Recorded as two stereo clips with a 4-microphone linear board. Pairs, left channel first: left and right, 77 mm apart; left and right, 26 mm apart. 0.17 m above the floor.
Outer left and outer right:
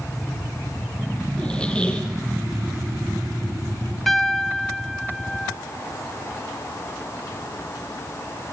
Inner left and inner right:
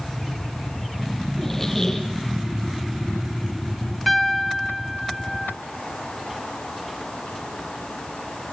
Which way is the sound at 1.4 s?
15° left (ahead or behind).